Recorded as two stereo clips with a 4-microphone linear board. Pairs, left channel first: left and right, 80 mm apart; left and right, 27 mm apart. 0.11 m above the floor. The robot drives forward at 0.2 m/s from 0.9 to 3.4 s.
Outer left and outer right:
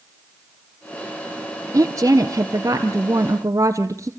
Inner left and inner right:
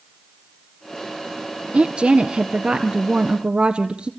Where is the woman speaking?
40° right (ahead or behind), 2 m.